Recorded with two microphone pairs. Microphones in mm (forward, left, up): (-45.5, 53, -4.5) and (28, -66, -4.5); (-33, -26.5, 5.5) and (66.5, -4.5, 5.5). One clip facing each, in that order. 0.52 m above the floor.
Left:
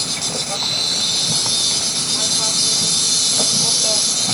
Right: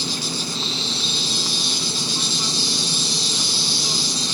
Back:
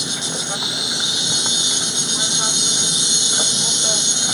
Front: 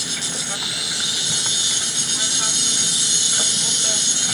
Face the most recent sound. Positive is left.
turn(degrees=125)